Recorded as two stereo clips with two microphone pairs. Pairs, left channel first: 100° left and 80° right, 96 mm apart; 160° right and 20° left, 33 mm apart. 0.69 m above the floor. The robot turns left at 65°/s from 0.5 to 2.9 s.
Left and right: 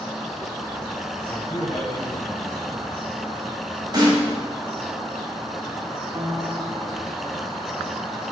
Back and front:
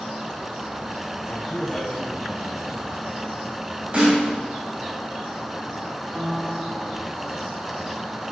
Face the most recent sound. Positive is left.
turn(degrees=-35)